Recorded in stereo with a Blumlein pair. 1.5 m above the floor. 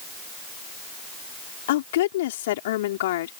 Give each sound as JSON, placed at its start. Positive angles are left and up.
{"t": 1.7, "sound": "a woman speaking", "azimuth_deg": 55}